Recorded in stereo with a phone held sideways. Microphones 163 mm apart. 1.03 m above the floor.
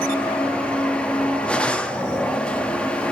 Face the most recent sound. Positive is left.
turn(degrees=5)  # may be behind; listen again after turning